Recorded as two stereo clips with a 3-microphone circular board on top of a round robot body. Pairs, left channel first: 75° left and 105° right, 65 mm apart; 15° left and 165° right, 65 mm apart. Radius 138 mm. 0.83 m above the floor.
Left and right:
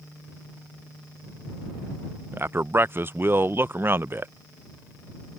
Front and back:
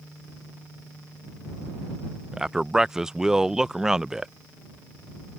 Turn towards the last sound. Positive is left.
turn(degrees=-90)